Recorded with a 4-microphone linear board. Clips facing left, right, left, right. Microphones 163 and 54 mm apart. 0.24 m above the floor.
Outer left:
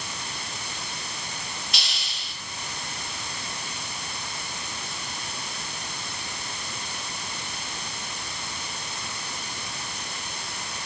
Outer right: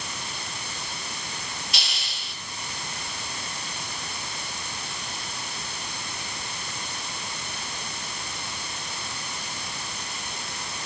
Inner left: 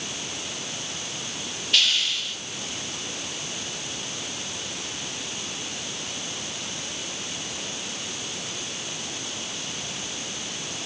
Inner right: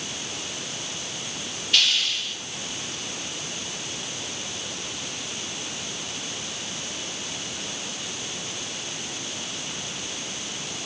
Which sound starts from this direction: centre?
A hiss, at 1.7 s.